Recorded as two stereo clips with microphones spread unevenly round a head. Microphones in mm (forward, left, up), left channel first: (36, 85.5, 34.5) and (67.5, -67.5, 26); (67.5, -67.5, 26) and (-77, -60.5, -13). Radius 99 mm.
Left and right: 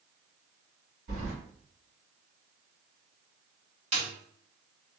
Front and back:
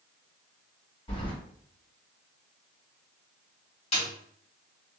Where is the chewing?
I don't hear chewing.